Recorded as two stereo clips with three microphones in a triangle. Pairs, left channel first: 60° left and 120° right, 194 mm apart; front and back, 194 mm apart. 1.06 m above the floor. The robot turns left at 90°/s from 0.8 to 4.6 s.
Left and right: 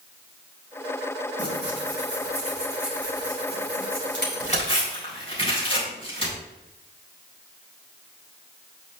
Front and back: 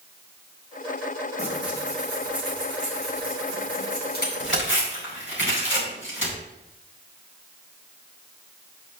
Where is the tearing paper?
75° right, 5 m; by 6.4 s 5° right, 5 m.